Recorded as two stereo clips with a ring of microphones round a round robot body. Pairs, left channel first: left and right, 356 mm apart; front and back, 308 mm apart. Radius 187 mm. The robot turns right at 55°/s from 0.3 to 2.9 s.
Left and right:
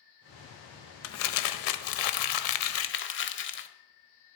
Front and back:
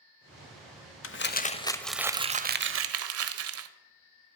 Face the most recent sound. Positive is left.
turn(degrees=145)